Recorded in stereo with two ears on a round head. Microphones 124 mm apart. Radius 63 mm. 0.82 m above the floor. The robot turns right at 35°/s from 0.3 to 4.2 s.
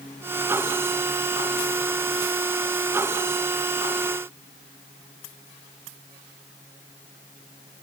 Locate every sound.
Only background noise.